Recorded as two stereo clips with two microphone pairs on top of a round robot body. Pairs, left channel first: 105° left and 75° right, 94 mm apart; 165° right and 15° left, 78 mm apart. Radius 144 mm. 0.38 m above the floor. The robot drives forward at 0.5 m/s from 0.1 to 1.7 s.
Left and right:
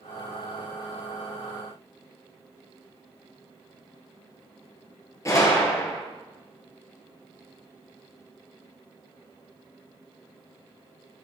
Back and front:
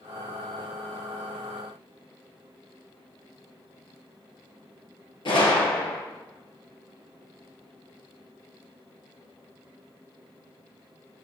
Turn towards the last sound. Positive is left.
turn(degrees=165)